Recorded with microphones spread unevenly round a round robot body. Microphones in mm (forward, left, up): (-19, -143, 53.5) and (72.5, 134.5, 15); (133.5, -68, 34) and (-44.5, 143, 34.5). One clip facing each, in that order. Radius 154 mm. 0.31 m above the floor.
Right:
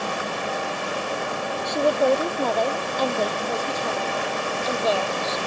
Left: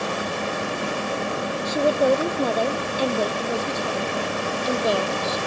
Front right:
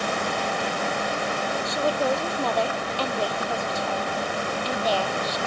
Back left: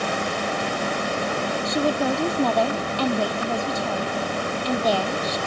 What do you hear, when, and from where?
1.6 s a woman speaking: 160° left; by 5.4 s 145° left